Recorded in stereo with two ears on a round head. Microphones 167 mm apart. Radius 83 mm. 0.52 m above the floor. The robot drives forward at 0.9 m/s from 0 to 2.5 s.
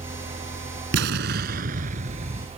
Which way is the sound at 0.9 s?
70° right (ahead or behind).